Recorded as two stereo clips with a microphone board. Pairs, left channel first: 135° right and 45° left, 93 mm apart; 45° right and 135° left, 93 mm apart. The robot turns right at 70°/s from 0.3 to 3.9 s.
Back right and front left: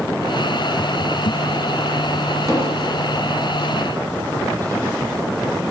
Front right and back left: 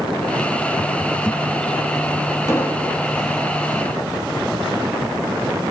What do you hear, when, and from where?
2.5 s an explosion: 5° left, 2 m; by 3.0 s 40° left, 2 m